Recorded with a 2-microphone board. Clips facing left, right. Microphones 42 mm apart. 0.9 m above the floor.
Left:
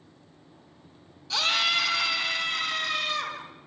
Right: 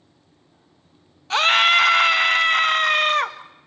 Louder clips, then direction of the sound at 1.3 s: Right 10 dB; 45° right (ahead or behind).